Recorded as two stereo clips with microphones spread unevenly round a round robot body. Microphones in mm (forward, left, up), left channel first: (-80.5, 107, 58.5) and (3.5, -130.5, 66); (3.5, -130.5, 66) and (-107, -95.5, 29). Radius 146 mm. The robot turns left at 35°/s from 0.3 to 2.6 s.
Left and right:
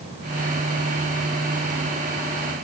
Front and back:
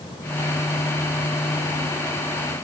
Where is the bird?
I don't hear a bird.